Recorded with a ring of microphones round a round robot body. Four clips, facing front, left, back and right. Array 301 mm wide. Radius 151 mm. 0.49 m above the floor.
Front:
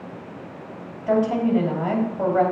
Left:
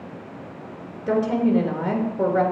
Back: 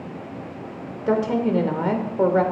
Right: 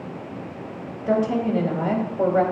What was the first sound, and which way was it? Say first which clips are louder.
A woman speaking: left 1 dB, front 1 dB; 175° left.